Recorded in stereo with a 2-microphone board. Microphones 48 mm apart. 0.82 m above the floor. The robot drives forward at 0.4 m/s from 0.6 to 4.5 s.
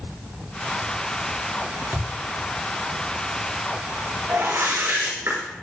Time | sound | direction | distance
1.9 | a thud | 70° right (ahead or behind) | 5 m
4.3 | a whoosh | 90° right | 7 m